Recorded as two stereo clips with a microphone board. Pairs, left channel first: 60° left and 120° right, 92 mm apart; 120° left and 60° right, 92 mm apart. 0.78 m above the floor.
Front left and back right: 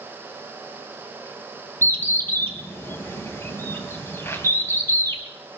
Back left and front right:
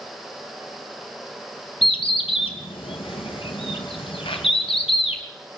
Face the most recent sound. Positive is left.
turn(degrees=125)